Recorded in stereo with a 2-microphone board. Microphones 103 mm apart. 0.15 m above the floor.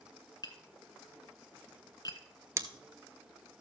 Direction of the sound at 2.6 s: 30° right (ahead or behind).